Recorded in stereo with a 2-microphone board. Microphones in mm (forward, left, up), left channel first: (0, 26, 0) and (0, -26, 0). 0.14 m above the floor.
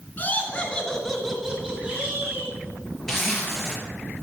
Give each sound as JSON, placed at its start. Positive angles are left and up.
{"t": 0.2, "sound": "laughter", "side_deg": 30, "distance_m": 2.0}
{"t": 3.1, "sound": "a zipper", "side_deg": 10, "distance_m": 3.0}